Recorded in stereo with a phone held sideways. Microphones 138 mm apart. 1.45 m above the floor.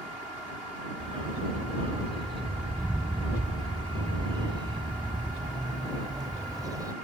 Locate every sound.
1.0 s a dog barking: 40° right (ahead or behind); by 7.0 s 25° right (ahead or behind)